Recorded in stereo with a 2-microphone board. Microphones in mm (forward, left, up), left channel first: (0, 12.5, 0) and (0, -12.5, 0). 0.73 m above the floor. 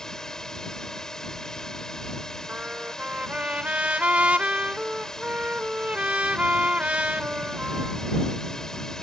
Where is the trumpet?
60° right (ahead or behind).